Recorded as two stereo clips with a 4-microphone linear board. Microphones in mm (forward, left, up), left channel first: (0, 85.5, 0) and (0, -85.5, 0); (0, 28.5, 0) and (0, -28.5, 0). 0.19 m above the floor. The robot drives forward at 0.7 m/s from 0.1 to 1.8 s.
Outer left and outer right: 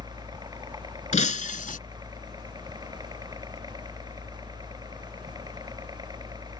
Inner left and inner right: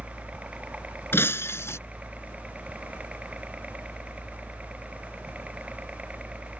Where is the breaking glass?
45° left (ahead or behind); by 1.8 s 55° left (ahead or behind).